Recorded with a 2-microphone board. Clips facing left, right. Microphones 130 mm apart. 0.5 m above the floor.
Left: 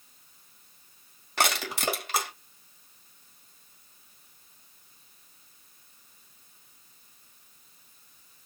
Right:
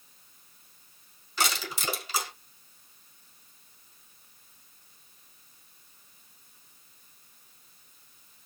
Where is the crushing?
65° left (ahead or behind), 1.9 m.